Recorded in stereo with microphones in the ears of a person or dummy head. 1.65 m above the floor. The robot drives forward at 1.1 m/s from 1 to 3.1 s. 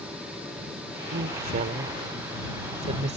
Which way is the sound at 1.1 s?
45° right (ahead or behind).